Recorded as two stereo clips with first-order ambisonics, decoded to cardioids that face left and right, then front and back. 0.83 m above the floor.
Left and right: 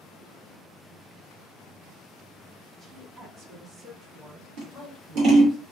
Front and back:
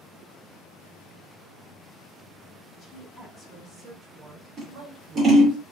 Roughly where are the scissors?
Behind right.